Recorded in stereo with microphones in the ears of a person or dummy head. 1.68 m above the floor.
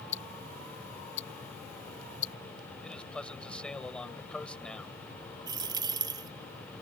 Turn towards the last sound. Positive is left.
turn(degrees=-15)  # may be behind; listen again after turning